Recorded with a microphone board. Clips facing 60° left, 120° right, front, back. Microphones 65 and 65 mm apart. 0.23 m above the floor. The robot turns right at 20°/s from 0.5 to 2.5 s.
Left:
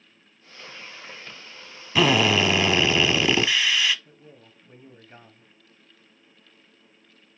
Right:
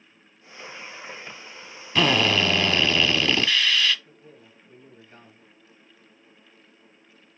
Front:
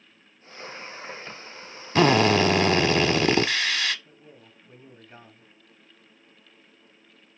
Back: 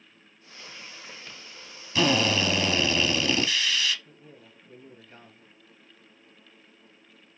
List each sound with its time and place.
1.9 s a drill: 20° right, 0.6 m; by 4.0 s 10° right, 0.6 m
4.0 s a man speaking: 35° left, 1.1 m